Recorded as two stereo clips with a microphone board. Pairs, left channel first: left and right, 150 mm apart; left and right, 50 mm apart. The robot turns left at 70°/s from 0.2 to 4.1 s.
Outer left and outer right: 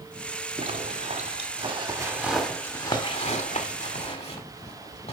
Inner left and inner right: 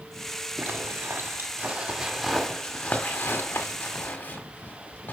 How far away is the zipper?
About 1.8 m.